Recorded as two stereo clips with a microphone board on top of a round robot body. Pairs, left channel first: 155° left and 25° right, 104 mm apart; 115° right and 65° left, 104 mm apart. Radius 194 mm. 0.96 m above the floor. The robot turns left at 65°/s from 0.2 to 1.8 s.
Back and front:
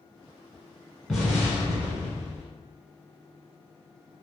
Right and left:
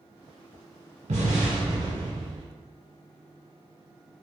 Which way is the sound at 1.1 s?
65° left.